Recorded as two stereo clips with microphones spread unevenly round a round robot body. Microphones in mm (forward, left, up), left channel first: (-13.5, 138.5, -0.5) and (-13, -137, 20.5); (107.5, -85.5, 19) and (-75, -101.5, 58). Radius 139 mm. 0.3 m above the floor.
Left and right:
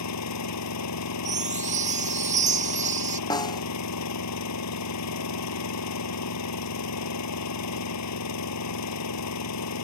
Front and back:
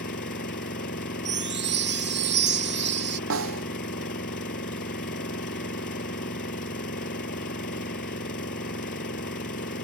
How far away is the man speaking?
No man speaking in this recording.